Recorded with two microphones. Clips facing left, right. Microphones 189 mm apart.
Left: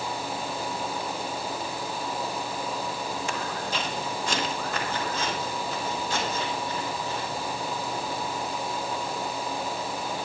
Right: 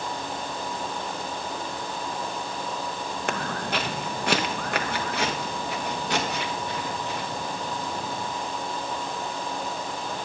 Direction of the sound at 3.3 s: 65° right (ahead or behind).